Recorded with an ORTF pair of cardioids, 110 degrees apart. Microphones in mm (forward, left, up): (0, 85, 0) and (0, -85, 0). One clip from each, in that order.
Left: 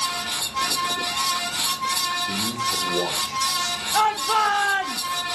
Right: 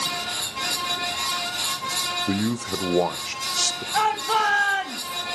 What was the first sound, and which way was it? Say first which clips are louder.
A fan: left 1 dB; 60° left.